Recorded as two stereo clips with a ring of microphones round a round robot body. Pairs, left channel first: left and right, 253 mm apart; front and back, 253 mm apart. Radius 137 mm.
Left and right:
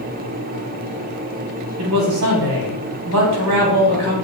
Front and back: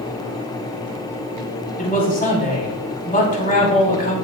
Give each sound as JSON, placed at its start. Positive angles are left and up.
{"t": 1.8, "sound": "a man speaking", "azimuth_deg": -55, "distance_m": 3.5}